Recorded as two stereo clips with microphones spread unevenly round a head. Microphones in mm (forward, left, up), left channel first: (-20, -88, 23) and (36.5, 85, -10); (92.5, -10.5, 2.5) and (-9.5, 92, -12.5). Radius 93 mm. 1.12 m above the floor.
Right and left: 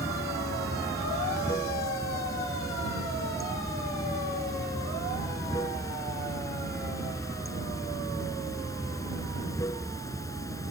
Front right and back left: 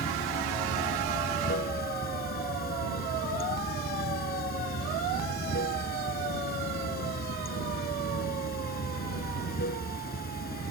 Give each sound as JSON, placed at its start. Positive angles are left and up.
{"t": 0.0, "sound": "running water", "azimuth_deg": -35}